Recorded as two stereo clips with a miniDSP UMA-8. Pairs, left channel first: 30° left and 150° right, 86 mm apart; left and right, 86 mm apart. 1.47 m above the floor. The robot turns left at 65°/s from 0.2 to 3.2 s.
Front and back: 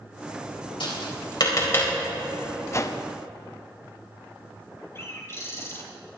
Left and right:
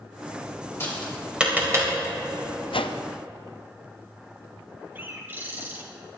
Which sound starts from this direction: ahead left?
Tapping, at 0.8 s.